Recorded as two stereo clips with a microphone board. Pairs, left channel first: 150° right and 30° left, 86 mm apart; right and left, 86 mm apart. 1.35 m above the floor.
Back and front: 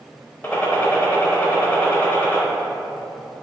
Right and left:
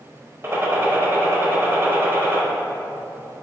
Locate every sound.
0.4 s a gunshot: 145° left, 0.8 m